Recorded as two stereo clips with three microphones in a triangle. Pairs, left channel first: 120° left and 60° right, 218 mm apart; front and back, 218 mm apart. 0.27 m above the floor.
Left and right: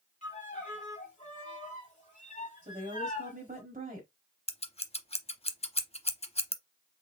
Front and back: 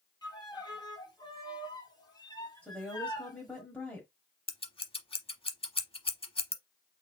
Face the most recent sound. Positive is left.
turn(degrees=60)